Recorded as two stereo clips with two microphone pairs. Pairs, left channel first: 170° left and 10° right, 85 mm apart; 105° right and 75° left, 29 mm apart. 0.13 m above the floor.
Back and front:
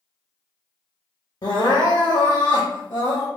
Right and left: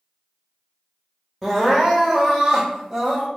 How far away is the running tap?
I don't hear a running tap.